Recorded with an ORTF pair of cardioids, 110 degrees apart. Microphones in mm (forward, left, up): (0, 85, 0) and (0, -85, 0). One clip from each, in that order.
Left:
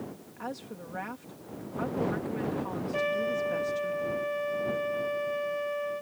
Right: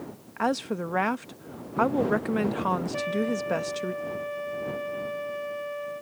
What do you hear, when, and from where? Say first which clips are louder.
0.4 s a woman speaking: right 13 dB; 70° right
2.9 s a trumpet: even; 15° left